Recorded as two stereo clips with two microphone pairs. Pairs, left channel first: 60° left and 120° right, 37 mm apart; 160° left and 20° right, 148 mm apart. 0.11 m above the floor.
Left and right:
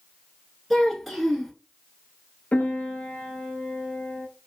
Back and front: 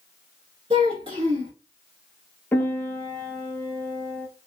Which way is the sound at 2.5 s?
90° left.